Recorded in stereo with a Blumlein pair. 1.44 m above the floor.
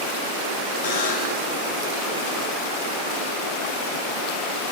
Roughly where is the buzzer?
Ahead left.